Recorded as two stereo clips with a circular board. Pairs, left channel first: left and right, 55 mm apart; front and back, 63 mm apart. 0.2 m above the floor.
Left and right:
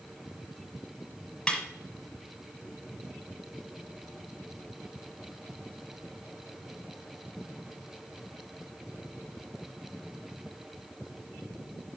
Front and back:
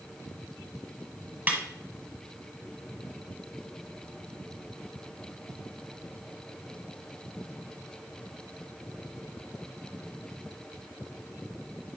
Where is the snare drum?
150° left, 1.4 m.